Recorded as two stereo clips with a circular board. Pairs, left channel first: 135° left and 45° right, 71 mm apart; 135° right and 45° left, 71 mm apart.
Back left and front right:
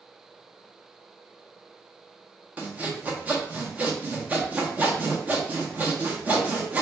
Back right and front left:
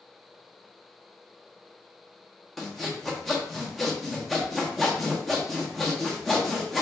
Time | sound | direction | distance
2.6 | sawing | 45° right | 0.7 m